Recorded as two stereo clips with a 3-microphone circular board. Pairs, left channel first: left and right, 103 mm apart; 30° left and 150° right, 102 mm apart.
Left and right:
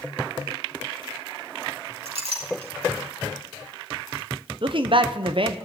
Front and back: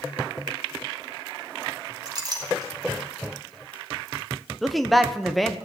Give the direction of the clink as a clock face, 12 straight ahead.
3 o'clock.